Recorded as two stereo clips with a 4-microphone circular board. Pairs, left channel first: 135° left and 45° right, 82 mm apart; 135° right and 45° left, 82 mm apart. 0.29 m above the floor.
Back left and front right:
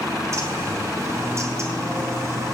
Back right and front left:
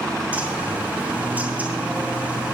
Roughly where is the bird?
Ahead.